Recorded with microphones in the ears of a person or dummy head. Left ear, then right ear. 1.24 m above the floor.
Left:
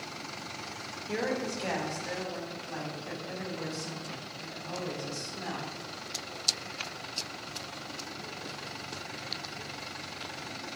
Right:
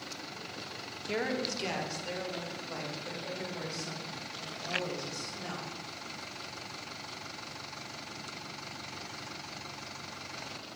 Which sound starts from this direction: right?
A woman speaking, at 1.1 s.